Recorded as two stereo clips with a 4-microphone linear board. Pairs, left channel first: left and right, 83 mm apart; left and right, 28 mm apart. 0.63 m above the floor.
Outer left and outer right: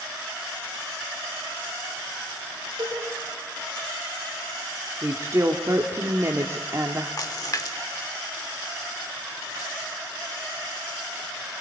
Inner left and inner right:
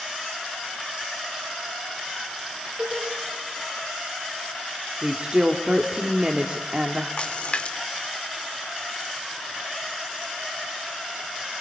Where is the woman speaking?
35° right (ahead or behind), 1.4 m.